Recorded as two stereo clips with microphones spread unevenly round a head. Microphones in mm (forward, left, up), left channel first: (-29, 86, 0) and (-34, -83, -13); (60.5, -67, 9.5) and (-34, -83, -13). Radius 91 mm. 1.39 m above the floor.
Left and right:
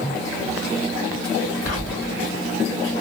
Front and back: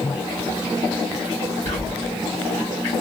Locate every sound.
1.6 s whispering: 165° left, 1.9 m